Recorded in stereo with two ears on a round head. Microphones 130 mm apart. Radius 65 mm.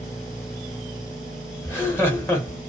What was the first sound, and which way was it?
Laughter, 15° left (ahead or behind).